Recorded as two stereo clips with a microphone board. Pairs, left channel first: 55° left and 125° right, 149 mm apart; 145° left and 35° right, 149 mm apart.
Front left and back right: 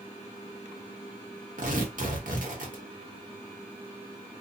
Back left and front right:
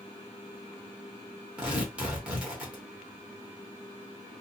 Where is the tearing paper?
115° right, 1.0 m.